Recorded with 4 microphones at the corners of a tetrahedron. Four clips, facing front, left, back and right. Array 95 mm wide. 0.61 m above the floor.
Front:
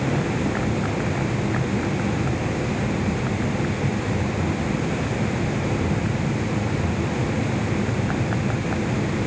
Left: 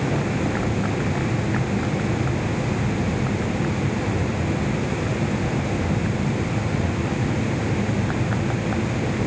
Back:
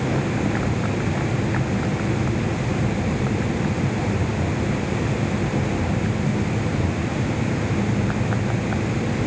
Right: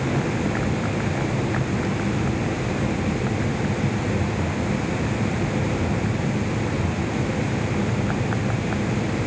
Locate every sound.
Only background noise.